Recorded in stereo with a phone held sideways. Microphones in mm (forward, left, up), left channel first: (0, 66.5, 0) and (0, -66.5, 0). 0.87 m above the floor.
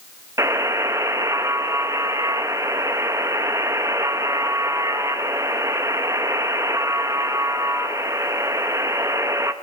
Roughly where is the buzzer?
Right.